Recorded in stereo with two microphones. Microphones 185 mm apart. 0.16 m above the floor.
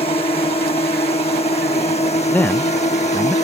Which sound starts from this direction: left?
A drone, at 0.0 s.